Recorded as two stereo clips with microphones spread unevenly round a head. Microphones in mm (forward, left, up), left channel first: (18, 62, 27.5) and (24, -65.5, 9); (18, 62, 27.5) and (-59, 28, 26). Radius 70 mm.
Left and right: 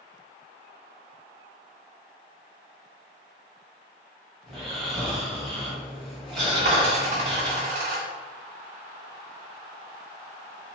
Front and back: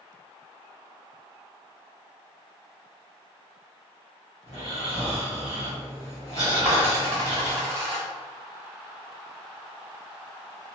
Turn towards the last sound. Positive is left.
turn(degrees=-105)